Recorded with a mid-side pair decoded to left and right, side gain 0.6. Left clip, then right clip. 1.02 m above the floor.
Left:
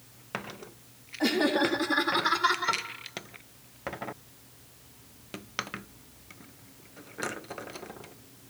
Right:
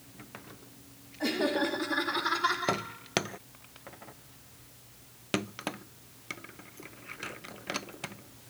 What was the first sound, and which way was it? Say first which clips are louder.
Laughter: left 4 dB; 40° left.